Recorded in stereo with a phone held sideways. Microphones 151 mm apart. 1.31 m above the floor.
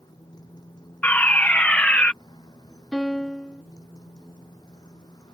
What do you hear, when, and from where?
0.0 s a motorcycle: 25° left (ahead or behind)
1.0 s a fire alarm: 10° left (ahead or behind)
2.9 s a piano: 5° left (ahead or behind)